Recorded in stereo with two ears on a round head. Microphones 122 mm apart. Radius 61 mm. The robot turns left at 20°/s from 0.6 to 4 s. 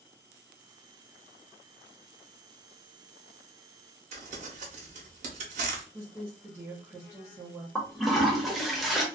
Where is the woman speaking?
10° right (ahead or behind), 0.9 m.